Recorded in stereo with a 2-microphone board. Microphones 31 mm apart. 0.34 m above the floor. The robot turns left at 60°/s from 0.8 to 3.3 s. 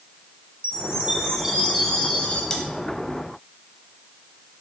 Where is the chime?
130° right, 3 m; by 2.4 s 135° left, 3 m.